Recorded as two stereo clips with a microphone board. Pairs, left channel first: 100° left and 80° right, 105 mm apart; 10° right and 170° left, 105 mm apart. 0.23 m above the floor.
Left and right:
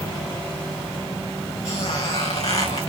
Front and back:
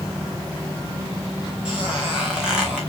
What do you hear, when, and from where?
1.6 s a squeak: 90° left, 3 m